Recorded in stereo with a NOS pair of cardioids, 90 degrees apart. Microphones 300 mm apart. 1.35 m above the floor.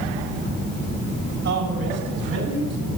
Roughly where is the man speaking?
Ahead right.